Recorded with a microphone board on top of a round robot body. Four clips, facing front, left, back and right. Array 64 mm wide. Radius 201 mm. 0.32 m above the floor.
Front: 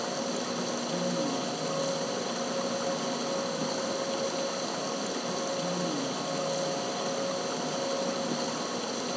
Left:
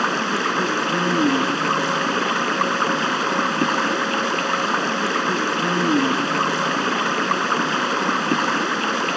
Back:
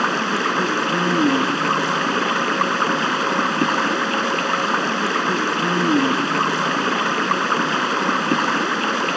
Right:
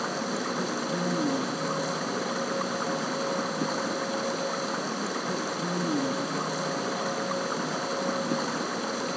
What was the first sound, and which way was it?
Running water, 145° left.